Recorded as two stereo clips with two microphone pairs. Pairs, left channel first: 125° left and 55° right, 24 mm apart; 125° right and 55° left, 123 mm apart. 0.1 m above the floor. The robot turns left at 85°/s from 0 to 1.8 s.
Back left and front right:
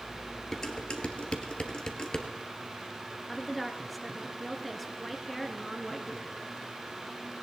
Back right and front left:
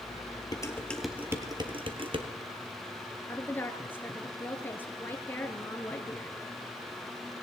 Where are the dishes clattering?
170° right, 1.4 m; by 2.3 s 80° left, 1.4 m.